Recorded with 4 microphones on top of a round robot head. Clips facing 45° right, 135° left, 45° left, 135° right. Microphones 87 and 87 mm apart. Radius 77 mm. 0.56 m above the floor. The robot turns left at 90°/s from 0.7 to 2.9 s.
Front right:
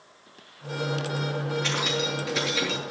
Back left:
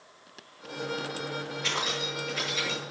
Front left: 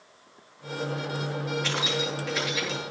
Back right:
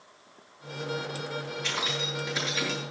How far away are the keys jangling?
About 8 m.